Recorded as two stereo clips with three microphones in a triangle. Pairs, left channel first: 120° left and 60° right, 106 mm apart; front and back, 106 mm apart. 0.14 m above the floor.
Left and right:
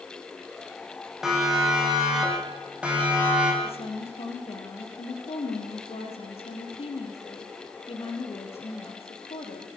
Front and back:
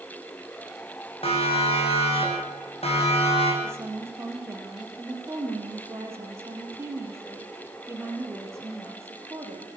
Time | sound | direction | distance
1.2 | a siren | 25° left | 8.5 m
3.6 | a woman speaking | 115° left | 4.5 m